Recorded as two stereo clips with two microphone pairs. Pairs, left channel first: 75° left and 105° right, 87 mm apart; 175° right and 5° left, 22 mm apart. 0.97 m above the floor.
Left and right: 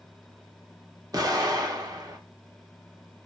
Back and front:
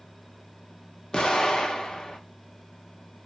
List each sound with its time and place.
1.1 s an explosion: 130° right, 0.7 m